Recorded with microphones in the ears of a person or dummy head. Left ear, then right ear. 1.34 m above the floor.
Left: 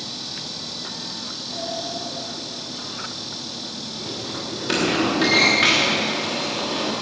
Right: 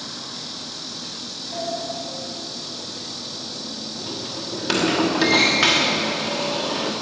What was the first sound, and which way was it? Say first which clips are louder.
A sliding door: right 2 dB; 10° right (ahead or behind).